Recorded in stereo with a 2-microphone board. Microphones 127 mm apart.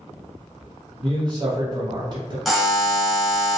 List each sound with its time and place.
1.0 s a man speaking: 35° right (ahead or behind), 1.3 m
2.5 s a buzzer: centre (ahead or behind), 0.7 m